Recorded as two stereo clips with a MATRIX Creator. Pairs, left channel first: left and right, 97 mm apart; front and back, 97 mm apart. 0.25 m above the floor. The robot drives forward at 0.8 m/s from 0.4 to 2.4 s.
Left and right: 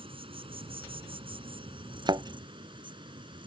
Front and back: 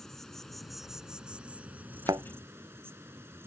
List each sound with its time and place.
0.0 s an insect: 85° right; by 3.5 s 115° right
2.1 s a thud: 130° right; by 2.2 s 135° right